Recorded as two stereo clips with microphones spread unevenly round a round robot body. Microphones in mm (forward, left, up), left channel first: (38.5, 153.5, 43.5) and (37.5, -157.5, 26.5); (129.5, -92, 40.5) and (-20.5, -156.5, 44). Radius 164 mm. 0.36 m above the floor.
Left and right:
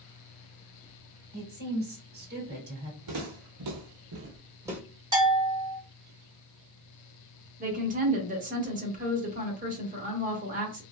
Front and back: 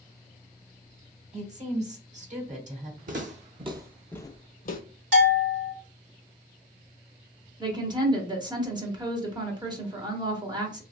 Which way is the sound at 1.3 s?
135° right.